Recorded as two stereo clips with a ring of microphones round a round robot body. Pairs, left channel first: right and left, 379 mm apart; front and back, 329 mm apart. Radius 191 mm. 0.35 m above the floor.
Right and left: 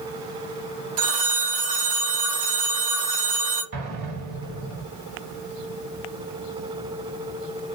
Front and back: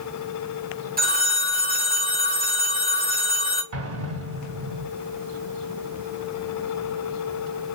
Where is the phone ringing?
120° left, 1.7 m.